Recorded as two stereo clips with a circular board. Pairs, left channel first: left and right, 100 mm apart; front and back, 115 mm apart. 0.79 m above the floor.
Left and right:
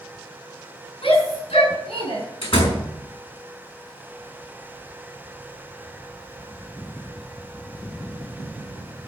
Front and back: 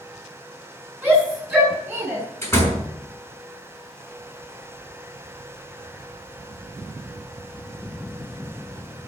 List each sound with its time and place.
1.0 s a shout: 100° left, 8.5 m; by 2.2 s 105° left, 9 m
2.4 s a door slam: 70° left, 5 m